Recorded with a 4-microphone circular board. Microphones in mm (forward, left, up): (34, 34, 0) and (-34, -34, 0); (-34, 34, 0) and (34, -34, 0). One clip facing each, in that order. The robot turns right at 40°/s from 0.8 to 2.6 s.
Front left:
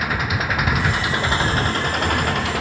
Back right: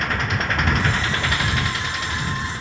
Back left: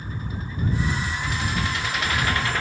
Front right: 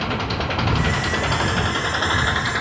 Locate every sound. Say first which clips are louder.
0.0 s an engine running: front left 1 dB, front right 11 dB; 40° right; by 2.6 s 30° left